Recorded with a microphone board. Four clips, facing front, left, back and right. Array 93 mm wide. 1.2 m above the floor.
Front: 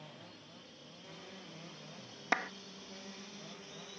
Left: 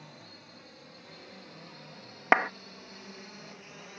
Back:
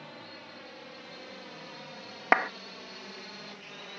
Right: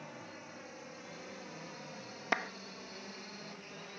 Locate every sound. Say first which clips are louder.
0.0 s a drone: right 3 dB, back 7 dB; 155° right; by 4.0 s 170° left
2.3 s a clap: left 11 dB, back 10 dB; 130° left